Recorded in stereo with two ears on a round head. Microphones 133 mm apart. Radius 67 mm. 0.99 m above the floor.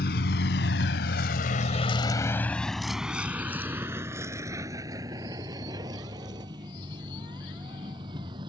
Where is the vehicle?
70° left (ahead or behind); by 8.5 s 30° right (ahead or behind).